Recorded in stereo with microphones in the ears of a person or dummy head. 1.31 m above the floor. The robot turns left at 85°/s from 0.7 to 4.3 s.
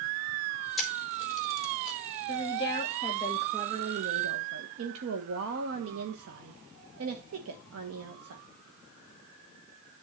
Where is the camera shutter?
5° right (ahead or behind), 1.8 m; by 2.0 s 80° left, 1.8 m.